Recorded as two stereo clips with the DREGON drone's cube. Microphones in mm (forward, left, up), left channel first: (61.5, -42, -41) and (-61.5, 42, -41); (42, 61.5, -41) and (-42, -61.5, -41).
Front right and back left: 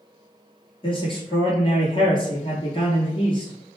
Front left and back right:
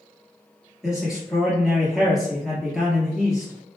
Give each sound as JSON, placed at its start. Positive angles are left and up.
{"t": 0.8, "sound": "a man speaking", "azimuth_deg": -40, "distance_m": 1.4}